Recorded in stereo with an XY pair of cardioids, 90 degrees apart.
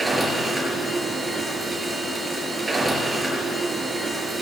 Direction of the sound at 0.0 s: 30° right.